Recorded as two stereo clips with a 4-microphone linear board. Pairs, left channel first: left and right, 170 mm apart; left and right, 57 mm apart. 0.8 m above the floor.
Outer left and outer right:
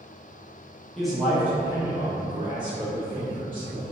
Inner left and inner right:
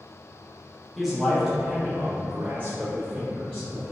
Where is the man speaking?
Centre (ahead or behind), 1.0 m; by 3.9 s 30° right (ahead or behind), 1.7 m.